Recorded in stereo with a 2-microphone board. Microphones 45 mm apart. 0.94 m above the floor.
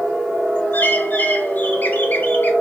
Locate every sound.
0.7 s a bird: 40° left (ahead or behind), 0.9 m